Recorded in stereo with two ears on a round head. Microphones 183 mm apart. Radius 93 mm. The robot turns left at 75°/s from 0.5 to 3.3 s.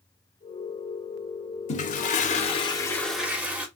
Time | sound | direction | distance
1.7 | a toilet flushing | 110° left | 0.6 m